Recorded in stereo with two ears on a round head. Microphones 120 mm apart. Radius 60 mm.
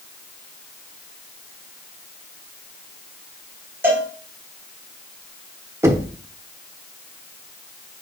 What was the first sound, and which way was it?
A cowbell, 15° right (ahead or behind).